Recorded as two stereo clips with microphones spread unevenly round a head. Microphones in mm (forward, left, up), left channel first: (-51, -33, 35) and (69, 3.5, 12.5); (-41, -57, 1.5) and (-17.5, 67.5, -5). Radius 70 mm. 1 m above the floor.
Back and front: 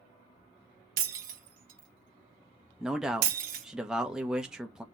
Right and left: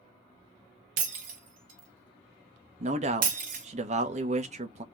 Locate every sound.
1.0 s breaking glass: 50° left, 1.4 m
2.8 s a man speaking: 95° left, 0.9 m